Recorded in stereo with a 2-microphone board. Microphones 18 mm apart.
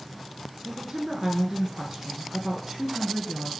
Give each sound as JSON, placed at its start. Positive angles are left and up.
{"t": 0.7, "sound": "a woman speaking", "side_deg": -20, "distance_m": 1.2}